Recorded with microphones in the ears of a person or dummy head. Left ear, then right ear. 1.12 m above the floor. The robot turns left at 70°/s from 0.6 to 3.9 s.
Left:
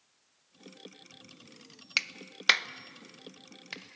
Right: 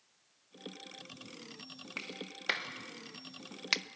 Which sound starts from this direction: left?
A clap, at 2.0 s.